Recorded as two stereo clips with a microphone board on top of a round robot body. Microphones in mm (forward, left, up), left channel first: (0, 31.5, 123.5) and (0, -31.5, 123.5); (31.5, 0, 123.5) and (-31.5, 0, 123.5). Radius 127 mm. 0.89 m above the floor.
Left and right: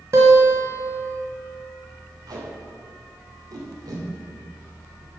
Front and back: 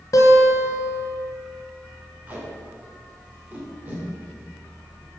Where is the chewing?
No chewing in this recording.